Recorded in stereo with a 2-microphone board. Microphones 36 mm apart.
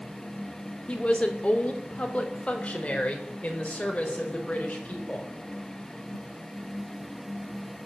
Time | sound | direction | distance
0.9 | a woman speaking | 30° left (ahead or behind) | 2.5 m